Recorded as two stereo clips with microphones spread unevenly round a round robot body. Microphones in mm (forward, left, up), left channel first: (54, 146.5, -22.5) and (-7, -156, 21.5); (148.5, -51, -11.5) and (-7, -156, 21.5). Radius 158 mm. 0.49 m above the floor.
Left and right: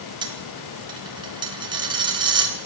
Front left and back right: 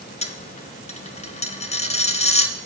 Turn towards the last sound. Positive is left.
turn(degrees=-25)